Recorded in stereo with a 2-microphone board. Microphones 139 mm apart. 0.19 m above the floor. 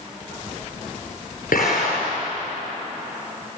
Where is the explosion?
85° left, 8 m.